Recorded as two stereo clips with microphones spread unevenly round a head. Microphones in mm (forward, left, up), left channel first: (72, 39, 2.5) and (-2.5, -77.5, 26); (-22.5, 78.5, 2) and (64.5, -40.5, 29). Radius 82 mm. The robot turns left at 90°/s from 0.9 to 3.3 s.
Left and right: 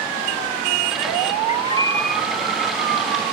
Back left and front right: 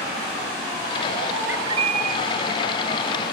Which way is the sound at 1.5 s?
20° left.